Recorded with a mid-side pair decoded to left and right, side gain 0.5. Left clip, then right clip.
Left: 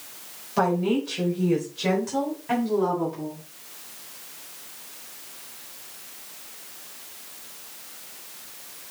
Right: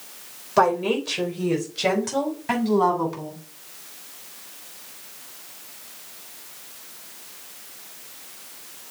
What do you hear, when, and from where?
0.6 s a woman speaking: 35° right, 4.5 m; by 3.4 s 55° right, 4 m